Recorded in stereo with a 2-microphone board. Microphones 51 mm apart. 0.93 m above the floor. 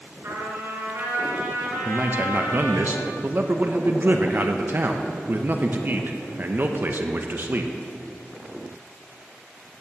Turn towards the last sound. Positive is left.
turn(degrees=-40)  # may be behind; listen again after turning